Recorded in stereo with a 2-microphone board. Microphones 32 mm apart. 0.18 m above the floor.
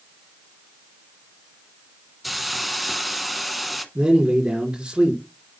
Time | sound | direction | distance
2.2 | a hiss | centre (ahead or behind) | 0.9 m
4.0 | a man speaking | 30° right (ahead or behind) | 2 m